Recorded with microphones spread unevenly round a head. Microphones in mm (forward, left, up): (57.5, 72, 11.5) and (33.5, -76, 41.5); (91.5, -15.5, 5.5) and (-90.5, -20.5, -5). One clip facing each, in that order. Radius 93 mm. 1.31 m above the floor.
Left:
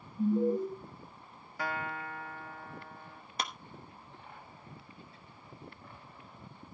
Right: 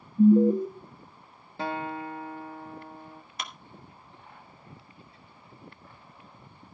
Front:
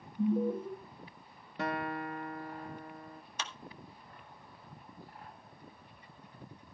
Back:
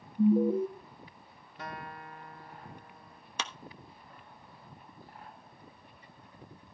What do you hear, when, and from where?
0.2 s an alarm: 100° right, 1.5 m
1.6 s a guitar: 30° right, 0.7 m
3.4 s a clap: 150° left, 1.0 m